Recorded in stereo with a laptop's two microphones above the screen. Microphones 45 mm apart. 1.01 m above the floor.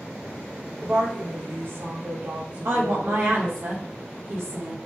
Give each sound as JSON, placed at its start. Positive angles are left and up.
{"t": 0.8, "sound": "a woman speaking", "side_deg": -65, "distance_m": 1.1}
{"t": 2.6, "sound": "a woman speaking", "side_deg": -60, "distance_m": 1.1}